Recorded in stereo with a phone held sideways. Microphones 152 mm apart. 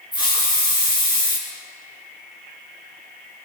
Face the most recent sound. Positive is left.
turn(degrees=30)  # may be behind; listen again after turning